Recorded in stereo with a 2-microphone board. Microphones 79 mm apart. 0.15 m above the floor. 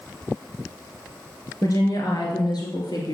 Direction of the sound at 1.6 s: 50° left (ahead or behind).